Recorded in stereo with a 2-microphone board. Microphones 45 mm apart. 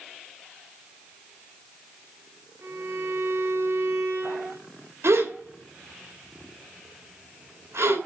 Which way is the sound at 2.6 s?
70° right (ahead or behind).